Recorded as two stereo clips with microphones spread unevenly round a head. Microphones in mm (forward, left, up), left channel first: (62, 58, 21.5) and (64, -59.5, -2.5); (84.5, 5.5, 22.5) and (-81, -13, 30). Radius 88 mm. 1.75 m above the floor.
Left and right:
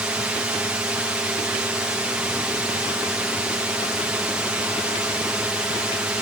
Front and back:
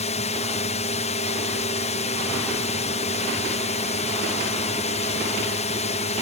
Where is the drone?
20° right.